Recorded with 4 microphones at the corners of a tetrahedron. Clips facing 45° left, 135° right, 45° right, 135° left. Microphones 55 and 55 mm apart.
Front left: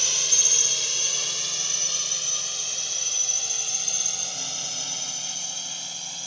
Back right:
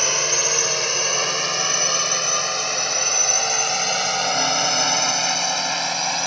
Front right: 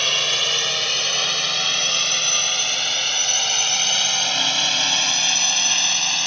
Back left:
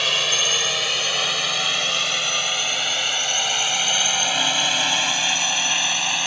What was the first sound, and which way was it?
A drone, 140° right.